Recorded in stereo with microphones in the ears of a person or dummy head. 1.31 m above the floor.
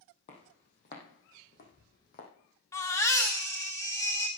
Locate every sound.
0.3 s footsteps: 40° left (ahead or behind), 3.5 m; by 2.3 s 55° left (ahead or behind), 3.5 m
2.7 s a baby crying: 15° left (ahead or behind), 1.5 m